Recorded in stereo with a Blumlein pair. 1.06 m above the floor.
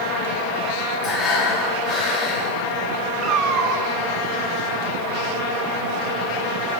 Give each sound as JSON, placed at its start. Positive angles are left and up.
{"t": 1.0, "sound": "breathing", "azimuth_deg": 30, "distance_m": 4.0}
{"t": 3.2, "sound": "a cat meowing", "azimuth_deg": -30, "distance_m": 1.3}